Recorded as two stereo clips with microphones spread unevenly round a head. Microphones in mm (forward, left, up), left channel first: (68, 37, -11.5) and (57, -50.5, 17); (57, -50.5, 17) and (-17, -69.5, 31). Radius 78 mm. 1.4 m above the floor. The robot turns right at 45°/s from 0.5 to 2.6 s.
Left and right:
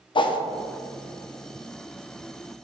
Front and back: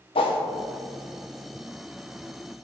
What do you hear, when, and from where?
0.1 s a whoosh: 45° left, 0.6 m